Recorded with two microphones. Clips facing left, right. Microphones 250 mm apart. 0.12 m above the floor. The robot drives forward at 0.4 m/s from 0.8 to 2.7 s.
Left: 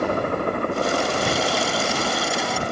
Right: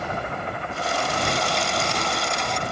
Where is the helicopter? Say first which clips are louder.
Left 8 dB; 60° left (ahead or behind); by 2.7 s 50° left (ahead or behind).